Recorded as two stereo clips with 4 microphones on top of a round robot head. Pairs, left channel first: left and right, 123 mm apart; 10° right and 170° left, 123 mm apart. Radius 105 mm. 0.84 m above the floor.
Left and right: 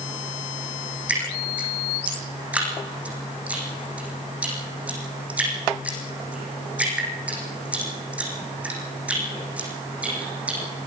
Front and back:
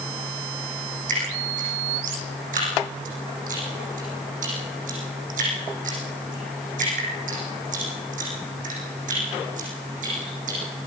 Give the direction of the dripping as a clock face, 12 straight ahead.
6 o'clock.